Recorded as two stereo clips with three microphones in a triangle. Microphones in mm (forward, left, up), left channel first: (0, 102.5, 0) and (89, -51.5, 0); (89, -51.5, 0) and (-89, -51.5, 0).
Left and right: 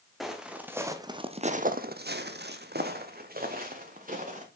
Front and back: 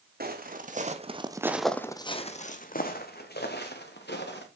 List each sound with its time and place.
0.2 s footsteps: 150° right, 1.4 m; by 4.5 s 15° right, 2.5 m